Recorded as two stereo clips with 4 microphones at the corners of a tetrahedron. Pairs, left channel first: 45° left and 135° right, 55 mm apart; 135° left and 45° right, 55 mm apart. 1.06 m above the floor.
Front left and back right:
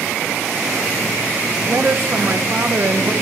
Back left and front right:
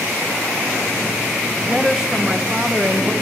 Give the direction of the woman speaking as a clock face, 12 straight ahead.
4 o'clock.